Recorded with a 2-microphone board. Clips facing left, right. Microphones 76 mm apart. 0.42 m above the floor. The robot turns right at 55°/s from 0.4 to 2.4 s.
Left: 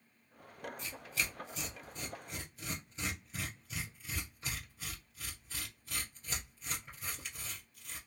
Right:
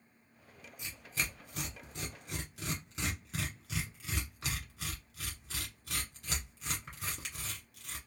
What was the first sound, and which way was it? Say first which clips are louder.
Tearing paper: right 2 dB; 15° right (ahead or behind).